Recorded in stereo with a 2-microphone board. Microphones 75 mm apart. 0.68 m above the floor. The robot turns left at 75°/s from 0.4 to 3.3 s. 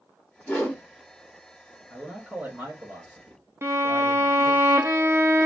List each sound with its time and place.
0.5 s a whoosh: 20° left (ahead or behind), 1.3 m; by 0.8 s 10° left (ahead or behind), 1.3 m
1.9 s a man speaking: 15° left, 1.8 m; by 4.6 s 90° right, 1.8 m
3.6 s a violin: 35° right (ahead or behind), 0.6 m